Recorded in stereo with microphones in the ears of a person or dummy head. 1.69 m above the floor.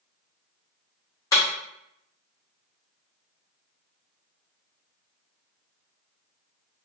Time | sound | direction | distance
1.3 | breaking glass | 25° left (ahead or behind) | 1.3 m